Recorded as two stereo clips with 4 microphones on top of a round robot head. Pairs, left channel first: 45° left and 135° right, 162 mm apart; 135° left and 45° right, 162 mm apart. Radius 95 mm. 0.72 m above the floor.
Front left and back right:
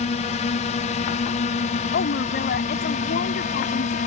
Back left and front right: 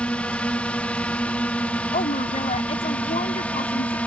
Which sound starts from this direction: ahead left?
A drone, at 0.0 s.